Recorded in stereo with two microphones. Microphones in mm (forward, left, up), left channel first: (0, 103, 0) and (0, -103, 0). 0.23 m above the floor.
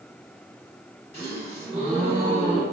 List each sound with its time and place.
1.1 s a gasp: 30° right (ahead or behind), 1.7 m